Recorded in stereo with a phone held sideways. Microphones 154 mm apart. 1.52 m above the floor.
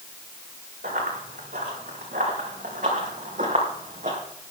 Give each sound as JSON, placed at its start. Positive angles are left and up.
{"t": 0.8, "sound": "running footsteps", "side_deg": -70, "distance_m": 5.5}